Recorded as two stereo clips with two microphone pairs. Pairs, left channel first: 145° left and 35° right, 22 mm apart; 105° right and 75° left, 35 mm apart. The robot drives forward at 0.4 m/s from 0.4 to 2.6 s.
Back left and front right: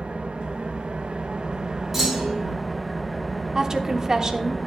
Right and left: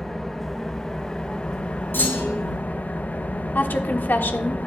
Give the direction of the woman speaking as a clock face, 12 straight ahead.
3 o'clock.